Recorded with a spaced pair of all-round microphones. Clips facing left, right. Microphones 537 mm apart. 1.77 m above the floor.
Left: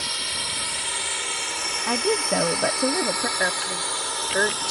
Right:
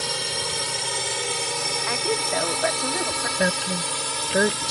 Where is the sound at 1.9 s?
60° left (ahead or behind).